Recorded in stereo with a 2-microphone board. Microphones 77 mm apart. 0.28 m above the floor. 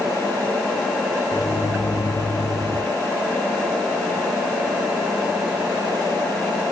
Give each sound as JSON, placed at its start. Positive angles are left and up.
{"t": 1.3, "sound": "a microwave", "side_deg": 40, "distance_m": 1.8}